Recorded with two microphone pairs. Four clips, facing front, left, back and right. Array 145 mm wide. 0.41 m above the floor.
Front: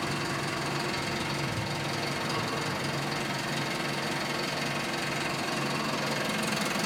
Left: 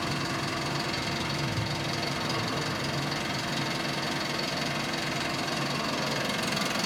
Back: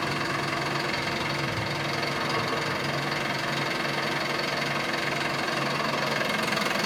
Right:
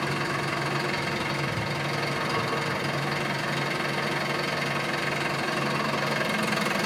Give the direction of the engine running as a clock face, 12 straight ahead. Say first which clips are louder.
Right 3 dB, back 3 dB; 5 o'clock.